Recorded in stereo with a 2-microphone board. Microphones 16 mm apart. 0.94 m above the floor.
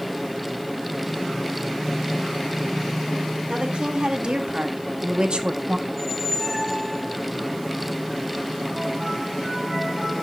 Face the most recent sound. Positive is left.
turn(degrees=-10)  # may be behind; listen again after turning